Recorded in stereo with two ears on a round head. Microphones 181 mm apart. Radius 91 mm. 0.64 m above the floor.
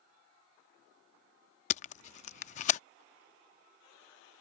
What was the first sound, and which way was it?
Tape being pulled, 35° left (ahead or behind).